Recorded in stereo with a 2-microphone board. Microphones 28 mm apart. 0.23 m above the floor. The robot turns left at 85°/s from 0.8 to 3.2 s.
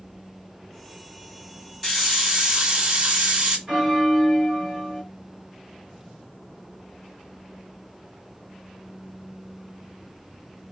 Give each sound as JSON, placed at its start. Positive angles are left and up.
{"t": 1.8, "sound": "a hiss", "azimuth_deg": 15, "distance_m": 1.3}
{"t": 3.7, "sound": "a bell", "side_deg": -25, "distance_m": 1.9}